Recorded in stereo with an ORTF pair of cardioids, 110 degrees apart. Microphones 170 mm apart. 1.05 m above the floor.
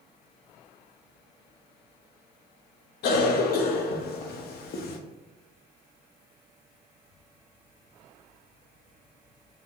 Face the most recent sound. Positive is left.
turn(degrees=65)